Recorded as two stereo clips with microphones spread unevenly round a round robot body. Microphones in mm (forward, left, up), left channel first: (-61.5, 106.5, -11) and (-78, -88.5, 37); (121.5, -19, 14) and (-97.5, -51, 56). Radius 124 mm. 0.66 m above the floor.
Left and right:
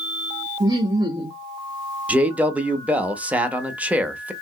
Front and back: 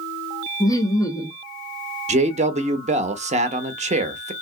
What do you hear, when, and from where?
0.6 s laughter: 15° right, 0.6 m
2.1 s a man speaking: 155° left, 0.7 m